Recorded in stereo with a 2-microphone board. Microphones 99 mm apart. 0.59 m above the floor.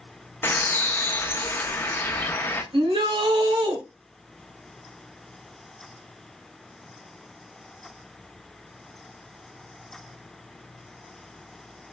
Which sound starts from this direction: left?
A bird, at 0.4 s.